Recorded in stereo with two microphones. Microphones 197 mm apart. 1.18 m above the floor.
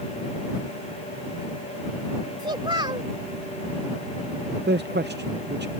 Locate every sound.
2.4 s a child speaking: 25° right (ahead or behind)
4.7 s a man speaking: 60° right (ahead or behind)